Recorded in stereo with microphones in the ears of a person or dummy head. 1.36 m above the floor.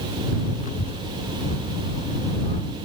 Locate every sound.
0.6 s a child speaking: 35° left (ahead or behind)